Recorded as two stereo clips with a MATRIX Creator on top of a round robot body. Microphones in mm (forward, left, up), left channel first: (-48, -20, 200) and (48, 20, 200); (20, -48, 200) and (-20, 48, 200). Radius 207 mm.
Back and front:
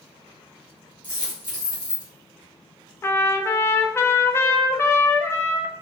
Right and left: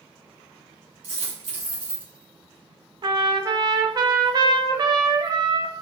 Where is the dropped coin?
75° left, 1.9 m.